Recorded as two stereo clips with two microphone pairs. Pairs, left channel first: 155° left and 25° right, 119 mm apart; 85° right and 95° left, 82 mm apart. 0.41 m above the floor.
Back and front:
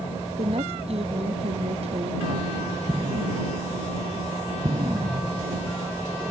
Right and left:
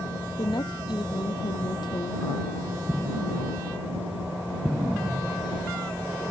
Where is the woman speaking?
60° right.